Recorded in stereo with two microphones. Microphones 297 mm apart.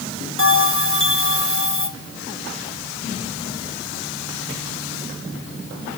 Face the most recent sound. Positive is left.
turn(degrees=45)  # may be behind; listen again after turning